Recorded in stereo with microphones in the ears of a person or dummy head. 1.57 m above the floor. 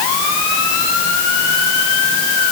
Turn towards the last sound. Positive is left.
No sound to turn to.